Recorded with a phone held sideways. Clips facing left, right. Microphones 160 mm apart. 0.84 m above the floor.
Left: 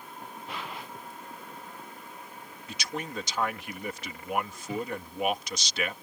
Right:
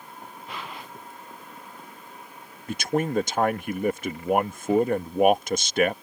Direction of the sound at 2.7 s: 50° right (ahead or behind).